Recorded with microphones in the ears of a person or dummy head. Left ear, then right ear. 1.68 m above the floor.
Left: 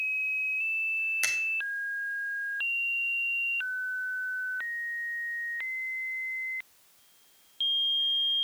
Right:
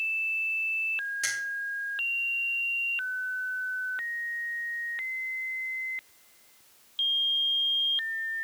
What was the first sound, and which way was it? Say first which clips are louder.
A finger snap: left 2 dB; 35° left (ahead or behind).